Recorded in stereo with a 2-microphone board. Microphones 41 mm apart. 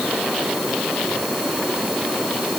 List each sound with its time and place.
Only background noise.